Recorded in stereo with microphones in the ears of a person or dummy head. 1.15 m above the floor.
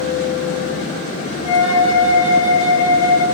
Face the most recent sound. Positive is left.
turn(degrees=55)  # may be behind; listen again after turning